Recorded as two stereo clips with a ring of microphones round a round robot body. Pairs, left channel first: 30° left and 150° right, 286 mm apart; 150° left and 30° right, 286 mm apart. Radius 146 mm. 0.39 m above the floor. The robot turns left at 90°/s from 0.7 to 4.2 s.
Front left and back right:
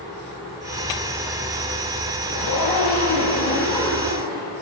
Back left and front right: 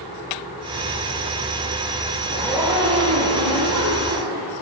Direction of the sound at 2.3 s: 85° left.